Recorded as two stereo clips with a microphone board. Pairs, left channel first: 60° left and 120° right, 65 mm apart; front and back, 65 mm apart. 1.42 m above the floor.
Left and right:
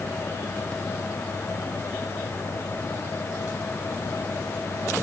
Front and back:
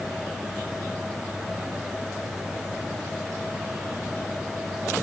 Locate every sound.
Only background noise.